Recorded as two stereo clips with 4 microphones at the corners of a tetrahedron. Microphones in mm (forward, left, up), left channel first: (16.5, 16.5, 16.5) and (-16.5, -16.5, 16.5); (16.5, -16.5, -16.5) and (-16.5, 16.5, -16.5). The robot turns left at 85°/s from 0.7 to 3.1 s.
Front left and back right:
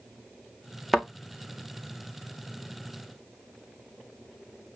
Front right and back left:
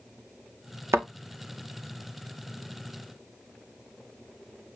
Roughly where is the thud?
Behind left.